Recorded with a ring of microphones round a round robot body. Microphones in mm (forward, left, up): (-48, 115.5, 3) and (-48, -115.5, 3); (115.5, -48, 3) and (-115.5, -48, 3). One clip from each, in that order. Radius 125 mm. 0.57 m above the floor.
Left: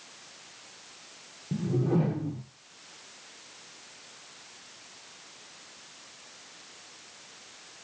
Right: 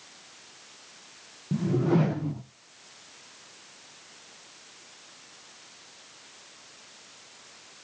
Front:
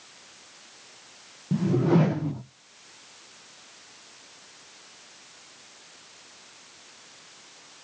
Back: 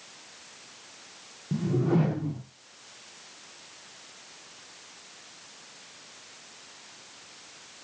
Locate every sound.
1.5 s a whoosh: 50° right, 0.5 m